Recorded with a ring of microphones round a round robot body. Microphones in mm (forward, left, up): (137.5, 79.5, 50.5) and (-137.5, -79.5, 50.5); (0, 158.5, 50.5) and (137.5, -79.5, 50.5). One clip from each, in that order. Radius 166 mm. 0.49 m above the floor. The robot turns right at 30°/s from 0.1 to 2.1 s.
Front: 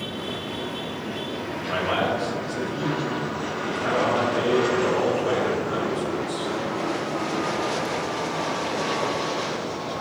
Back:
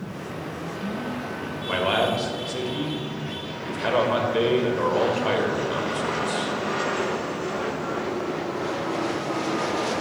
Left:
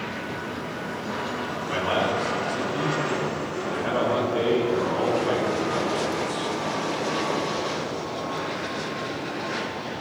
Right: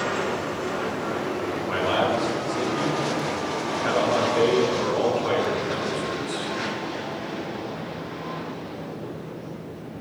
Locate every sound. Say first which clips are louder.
1.7 s a man speaking: back 2 dB, right 1 dB; 150° right, 2.5 m; by 6.6 s 140° right, 2.5 m